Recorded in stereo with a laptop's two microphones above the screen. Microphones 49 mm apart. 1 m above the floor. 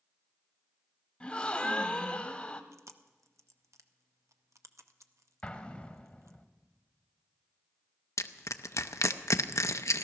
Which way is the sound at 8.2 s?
85° left.